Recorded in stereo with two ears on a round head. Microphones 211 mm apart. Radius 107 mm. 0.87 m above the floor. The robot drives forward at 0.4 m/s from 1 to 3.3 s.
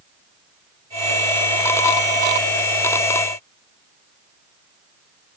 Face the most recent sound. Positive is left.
No sound to turn to.